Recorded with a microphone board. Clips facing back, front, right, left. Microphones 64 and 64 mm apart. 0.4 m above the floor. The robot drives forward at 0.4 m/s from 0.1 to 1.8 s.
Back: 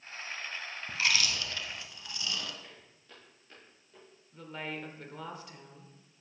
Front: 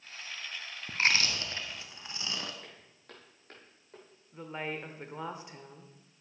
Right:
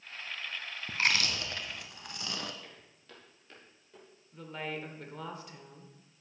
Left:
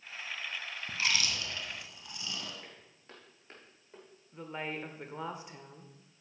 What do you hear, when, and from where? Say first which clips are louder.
0.9 s chewing: front 2 dB, right 3 dB; 45° right, 1.2 m; by 2.5 s 60° right, 1.0 m
2.6 s footsteps: front 2 dB, even; 25° left, 5 m; by 4.0 s 35° left, 5 m
4.3 s a woman speaking: front 2 dB, even; 40° left, 1.0 m